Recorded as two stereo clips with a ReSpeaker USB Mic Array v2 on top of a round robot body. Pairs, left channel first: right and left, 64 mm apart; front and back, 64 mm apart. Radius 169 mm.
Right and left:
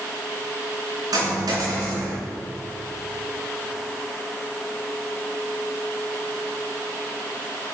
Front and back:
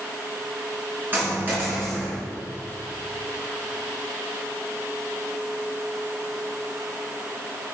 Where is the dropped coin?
115° left, 3 m.